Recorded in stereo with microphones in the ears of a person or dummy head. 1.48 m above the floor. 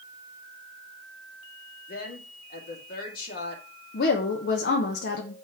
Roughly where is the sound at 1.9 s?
Left.